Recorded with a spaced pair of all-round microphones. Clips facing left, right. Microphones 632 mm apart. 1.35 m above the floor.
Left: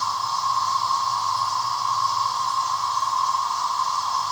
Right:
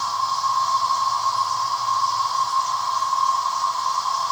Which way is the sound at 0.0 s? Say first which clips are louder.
Right 1 dB; 5° right (ahead or behind).